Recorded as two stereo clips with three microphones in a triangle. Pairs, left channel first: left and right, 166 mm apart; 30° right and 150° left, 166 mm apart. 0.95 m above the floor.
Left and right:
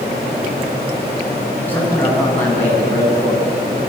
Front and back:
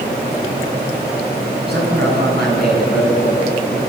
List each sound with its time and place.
1.7 s a man speaking: 170° left, 7.5 m